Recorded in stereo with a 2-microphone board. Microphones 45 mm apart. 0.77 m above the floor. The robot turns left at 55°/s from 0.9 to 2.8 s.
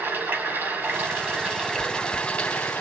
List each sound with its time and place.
0.0 s running water: 130° right, 2.5 m; by 2.8 s 125° left, 2.5 m
1.8 s chewing: 60° right (ahead or behind), 6 m; by 2.3 s 85° right, 6 m